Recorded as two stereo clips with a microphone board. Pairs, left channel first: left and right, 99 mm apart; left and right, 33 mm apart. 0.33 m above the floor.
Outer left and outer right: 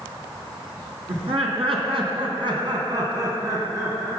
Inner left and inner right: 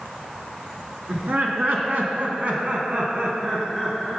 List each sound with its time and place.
1.1 s laughter: 65° right (ahead or behind), 3 m; by 4.2 s 25° right (ahead or behind), 4 m